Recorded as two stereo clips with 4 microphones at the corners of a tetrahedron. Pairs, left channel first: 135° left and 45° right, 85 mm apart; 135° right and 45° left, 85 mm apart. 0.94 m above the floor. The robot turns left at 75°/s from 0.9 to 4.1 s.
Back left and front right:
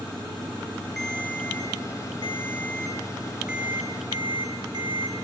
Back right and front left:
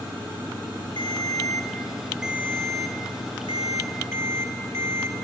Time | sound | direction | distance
1.0 | a ringtone | 140° right | 1.4 m